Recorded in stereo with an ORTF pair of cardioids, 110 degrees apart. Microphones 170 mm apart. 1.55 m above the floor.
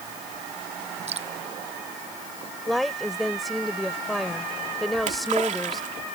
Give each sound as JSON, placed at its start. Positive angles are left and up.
{"t": 1.1, "sound": "dripping", "azimuth_deg": -40}
{"t": 2.7, "sound": "a woman speaking", "azimuth_deg": 0}
{"t": 5.0, "sound": "a splash", "azimuth_deg": -50}